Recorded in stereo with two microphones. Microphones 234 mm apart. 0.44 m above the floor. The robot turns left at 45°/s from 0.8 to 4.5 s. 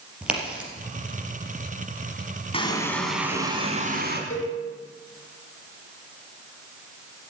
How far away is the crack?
About 4 m.